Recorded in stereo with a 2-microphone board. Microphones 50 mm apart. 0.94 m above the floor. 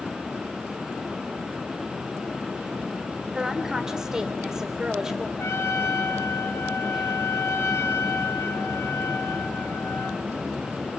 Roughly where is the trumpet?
Left.